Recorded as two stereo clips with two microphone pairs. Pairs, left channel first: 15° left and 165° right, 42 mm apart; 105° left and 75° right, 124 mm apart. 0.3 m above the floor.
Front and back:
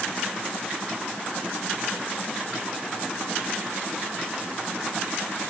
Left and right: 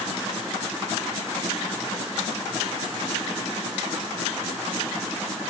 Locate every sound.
Only background noise.